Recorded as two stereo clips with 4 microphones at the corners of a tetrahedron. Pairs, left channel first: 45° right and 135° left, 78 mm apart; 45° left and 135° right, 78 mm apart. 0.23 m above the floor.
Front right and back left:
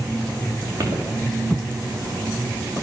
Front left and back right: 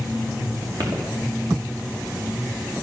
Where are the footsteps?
175° right, 5.5 m.